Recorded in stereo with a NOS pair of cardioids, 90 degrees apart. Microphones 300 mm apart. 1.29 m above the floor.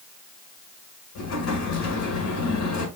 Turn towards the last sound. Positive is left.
turn(degrees=65)